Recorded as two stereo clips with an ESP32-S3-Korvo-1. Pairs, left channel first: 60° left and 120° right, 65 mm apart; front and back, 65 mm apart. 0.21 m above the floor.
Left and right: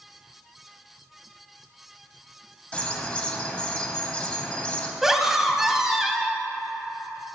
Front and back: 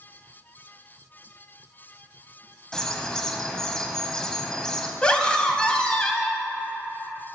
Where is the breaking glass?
I don't hear breaking glass.